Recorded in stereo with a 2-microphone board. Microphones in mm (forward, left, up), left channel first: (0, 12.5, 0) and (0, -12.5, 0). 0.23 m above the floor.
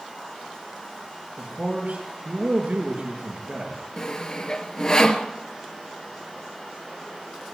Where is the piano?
I don't hear a piano.